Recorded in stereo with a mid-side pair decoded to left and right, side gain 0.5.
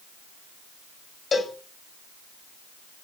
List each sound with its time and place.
1.3 s a cowbell: 35° left, 7.5 m